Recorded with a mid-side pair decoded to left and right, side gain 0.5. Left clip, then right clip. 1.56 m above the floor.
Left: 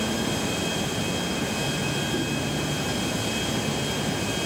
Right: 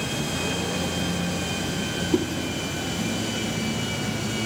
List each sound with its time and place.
2.1 s a whoosh: 65° right, 3.5 m